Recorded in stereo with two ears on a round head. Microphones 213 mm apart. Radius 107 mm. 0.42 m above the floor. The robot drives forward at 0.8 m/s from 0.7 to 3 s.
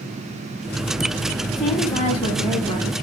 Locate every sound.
1.6 s a woman speaking: 15° left (ahead or behind), 2.5 m; by 2.9 s 10° left (ahead or behind), 3.5 m